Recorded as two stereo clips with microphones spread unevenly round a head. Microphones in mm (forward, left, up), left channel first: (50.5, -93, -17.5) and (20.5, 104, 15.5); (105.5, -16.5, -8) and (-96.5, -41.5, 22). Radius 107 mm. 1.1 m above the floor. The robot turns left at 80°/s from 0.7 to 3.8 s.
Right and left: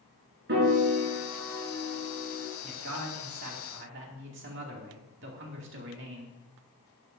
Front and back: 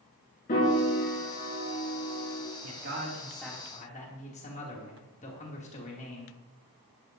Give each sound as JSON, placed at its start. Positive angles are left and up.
{"t": 0.5, "sound": "a piano", "azimuth_deg": 65, "distance_m": 4.5}
{"t": 2.6, "sound": "a man speaking", "azimuth_deg": 160, "distance_m": 2.5}